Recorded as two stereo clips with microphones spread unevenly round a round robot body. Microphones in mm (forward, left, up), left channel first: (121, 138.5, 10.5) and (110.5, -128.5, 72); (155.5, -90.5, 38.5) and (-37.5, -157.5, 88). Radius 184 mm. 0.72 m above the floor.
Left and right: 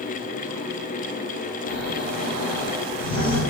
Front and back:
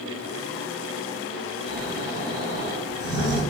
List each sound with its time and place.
1.7 s snoring: 170° left, 1.7 m